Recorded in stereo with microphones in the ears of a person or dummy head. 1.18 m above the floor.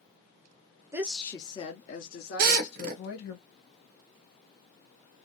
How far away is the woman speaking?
About 0.7 m.